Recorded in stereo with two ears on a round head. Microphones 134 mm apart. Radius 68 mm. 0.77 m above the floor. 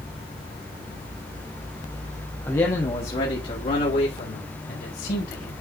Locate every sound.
2.5 s a man speaking: 15° left (ahead or behind), 1.4 m; by 5.5 s 65° left (ahead or behind), 4.5 m